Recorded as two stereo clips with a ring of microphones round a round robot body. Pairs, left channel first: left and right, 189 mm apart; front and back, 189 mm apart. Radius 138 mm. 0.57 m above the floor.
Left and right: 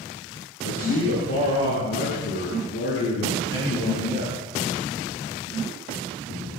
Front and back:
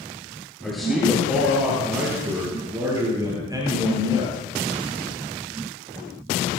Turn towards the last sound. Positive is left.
turn(degrees=115)